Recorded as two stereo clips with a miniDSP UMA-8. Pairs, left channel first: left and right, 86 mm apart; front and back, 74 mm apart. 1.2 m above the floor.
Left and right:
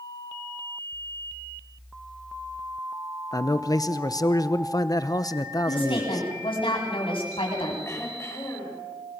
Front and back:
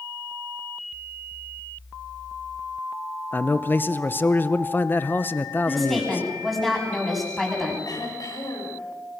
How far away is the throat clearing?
About 7.5 m.